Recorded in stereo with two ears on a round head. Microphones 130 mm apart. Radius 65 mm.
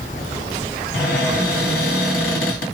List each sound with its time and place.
0.9 s a cupboard door: 60° left (ahead or behind), 1.6 m